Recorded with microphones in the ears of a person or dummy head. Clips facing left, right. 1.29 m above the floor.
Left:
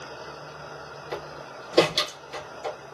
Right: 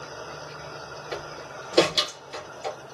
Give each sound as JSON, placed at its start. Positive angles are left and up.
{"t": 1.1, "sound": "a door slam", "side_deg": 0, "distance_m": 1.4}